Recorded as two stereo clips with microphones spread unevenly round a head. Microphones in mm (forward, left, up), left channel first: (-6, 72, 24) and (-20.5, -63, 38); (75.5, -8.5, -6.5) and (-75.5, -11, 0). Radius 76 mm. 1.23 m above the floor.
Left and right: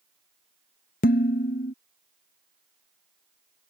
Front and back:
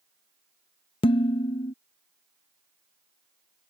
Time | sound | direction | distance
1.0 | dishes clattering | 55° left | ?